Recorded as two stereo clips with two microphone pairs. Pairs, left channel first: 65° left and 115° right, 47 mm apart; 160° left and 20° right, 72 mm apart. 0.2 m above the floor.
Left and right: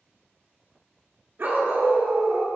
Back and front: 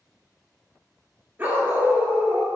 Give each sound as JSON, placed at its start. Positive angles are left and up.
{"t": 1.4, "sound": "a dog barking", "azimuth_deg": -75, "distance_m": 1.3}